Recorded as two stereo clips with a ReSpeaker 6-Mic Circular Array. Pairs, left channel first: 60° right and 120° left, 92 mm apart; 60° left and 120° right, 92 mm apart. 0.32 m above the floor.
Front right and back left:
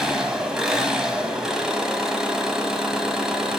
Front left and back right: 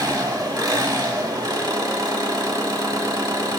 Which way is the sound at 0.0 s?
160° right.